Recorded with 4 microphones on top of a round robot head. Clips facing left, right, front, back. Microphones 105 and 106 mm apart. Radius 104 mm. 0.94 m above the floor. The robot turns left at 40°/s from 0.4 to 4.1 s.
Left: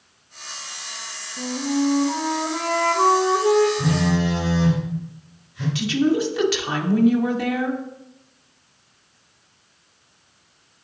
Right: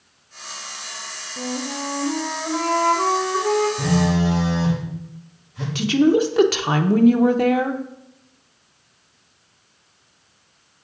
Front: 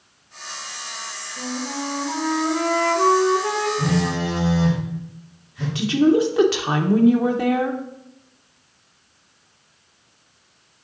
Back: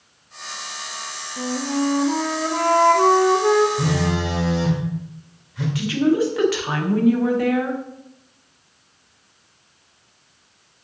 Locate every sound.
1.4 s a flute: 120° right, 0.9 m; by 3.7 s 150° left, 0.9 m
3.8 s a phone buzzing: 120° right, 3 m; by 5.7 s 135° right, 3 m
5.8 s a woman speaking: 60° right, 0.8 m